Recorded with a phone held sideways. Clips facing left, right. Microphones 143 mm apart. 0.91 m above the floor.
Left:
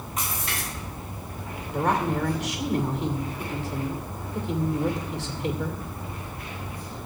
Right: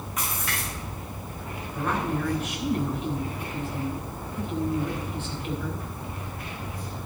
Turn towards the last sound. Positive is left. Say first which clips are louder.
# left 4 dB
turn(degrees=75)  # may be behind; listen again after turning